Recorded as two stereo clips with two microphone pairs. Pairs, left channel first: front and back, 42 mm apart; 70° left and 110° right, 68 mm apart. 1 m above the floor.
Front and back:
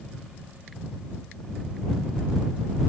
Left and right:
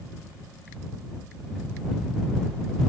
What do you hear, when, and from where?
Only background noise.